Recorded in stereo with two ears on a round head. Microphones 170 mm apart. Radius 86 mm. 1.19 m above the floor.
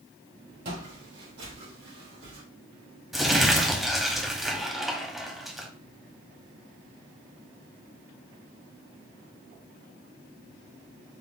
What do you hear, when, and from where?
0.7 s footsteps: 55° right (ahead or behind), 2.5 m; by 2.4 s 70° right (ahead or behind), 3 m
3.1 s crumpling: centre (ahead or behind), 0.8 m